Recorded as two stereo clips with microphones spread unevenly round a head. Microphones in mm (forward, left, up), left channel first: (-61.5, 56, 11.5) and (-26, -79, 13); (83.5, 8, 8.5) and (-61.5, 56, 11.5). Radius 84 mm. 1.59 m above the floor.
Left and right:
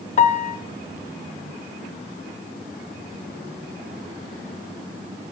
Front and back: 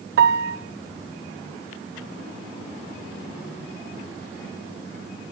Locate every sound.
0.2 s a piano: 145° left, 0.5 m